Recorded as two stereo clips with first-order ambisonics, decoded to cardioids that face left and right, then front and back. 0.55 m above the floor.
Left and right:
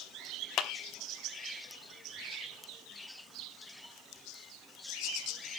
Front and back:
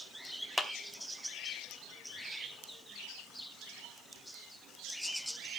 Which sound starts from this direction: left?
A clap, at 0.6 s.